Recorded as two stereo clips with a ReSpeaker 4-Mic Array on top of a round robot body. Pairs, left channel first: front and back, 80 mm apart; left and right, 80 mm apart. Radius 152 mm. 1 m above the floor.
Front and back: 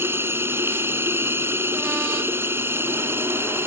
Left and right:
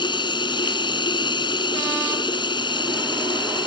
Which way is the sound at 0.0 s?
115° left.